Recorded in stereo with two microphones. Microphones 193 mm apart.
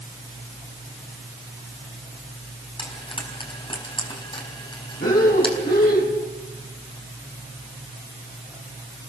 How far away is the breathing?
About 6 m.